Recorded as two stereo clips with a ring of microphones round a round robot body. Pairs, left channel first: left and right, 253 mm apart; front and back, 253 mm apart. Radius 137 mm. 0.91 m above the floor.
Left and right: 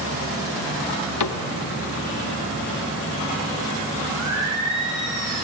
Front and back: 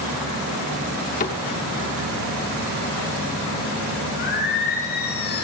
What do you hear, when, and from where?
1.2 s a cupboard door: 65° left, 0.9 m
4.2 s singing: 50° right, 6 m